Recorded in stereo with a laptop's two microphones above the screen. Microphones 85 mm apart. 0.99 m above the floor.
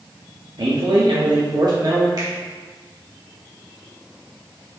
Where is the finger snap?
55° right (ahead or behind), 1.8 m.